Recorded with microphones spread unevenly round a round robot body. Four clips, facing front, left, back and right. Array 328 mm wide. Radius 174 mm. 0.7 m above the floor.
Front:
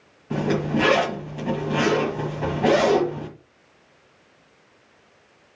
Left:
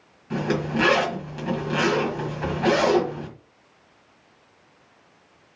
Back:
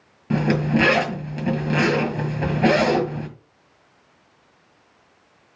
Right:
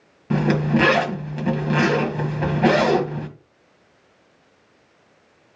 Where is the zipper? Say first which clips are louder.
Right 5 dB, back 2 dB; 140° right, 1.7 m.